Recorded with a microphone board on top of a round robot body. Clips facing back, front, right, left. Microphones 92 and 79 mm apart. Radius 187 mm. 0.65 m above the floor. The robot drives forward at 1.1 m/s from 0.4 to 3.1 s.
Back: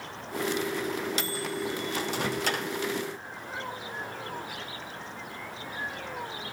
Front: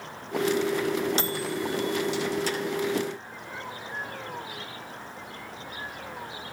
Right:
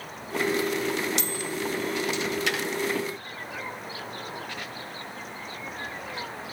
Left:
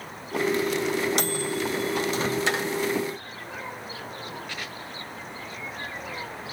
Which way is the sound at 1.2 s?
55° left.